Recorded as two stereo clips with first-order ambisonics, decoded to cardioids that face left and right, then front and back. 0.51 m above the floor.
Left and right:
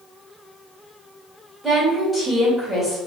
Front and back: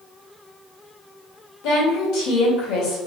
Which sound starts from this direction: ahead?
A woman speaking, at 1.6 s.